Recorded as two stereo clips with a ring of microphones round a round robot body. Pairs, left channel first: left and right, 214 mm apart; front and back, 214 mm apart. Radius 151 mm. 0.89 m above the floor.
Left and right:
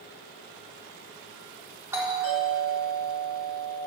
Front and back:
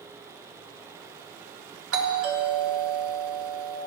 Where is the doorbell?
170° right, 3.5 m.